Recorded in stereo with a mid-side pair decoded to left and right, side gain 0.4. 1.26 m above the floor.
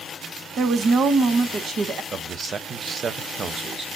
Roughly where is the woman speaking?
Ahead right.